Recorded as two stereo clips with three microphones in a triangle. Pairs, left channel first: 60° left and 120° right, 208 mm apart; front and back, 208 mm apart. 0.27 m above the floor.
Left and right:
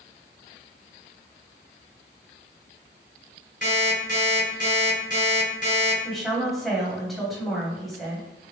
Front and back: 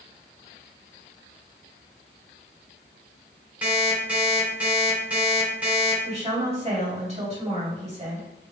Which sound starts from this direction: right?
An alarm clock, at 3.6 s.